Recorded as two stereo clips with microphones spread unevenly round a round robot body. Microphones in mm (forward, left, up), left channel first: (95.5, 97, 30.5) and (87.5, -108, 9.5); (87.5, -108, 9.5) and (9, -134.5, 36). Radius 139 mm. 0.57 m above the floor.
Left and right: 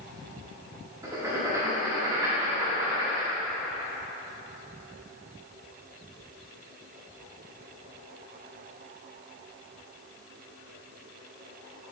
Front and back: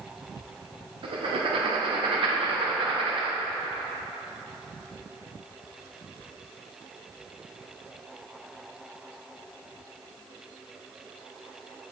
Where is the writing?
160° right, 0.6 m.